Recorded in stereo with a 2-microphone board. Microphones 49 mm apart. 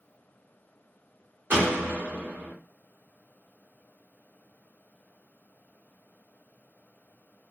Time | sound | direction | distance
1.5 | a door slam | 45° right (ahead or behind) | 1.0 m